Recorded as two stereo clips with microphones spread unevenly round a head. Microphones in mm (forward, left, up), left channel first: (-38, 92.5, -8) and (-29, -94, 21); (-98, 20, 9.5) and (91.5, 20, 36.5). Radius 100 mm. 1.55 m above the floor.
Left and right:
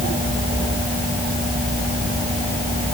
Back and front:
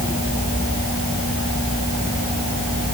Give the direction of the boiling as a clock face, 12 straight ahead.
No boiling in this recording.